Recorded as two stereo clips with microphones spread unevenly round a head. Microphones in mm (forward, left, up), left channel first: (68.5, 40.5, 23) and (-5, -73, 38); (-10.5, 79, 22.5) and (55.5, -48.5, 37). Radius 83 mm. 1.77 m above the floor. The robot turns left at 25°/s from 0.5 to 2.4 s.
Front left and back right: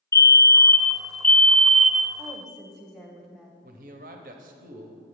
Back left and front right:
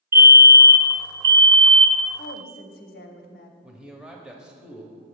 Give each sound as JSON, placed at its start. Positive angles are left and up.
{"t": 0.1, "sound": "a fire alarm", "azimuth_deg": 10, "distance_m": 0.6}
{"t": 2.2, "sound": "a woman speaking", "azimuth_deg": 155, "distance_m": 0.7}
{"t": 3.6, "sound": "a man speaking", "azimuth_deg": -145, "distance_m": 0.8}